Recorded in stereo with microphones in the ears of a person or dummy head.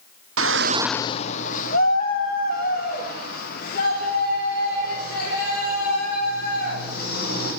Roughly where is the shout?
Right.